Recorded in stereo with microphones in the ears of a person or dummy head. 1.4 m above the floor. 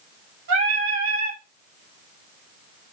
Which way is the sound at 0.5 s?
55° right (ahead or behind).